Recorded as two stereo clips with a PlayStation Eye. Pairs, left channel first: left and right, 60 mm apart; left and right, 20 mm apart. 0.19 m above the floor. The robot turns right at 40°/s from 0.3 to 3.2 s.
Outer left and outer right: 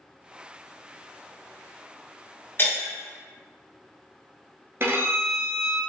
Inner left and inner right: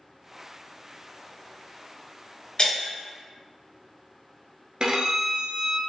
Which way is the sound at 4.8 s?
45° right (ahead or behind).